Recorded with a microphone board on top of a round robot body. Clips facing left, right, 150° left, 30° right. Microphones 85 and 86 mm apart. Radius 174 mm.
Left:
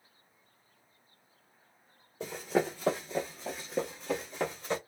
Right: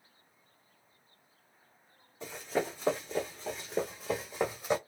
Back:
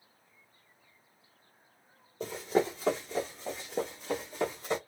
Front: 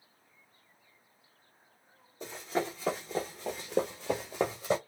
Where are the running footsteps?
120° left, 0.7 m; by 4.8 s 10° right, 1.2 m.